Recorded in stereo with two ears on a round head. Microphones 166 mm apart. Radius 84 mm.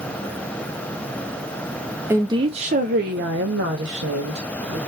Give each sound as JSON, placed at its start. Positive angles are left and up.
{"t": 2.1, "sound": "a woman speaking", "side_deg": -15, "distance_m": 0.6}